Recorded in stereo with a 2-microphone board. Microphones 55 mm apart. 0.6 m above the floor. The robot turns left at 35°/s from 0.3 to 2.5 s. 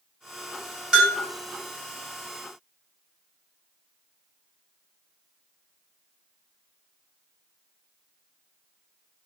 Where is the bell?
10° right (ahead or behind), 1.3 m; by 1.2 s 20° right (ahead or behind), 1.3 m.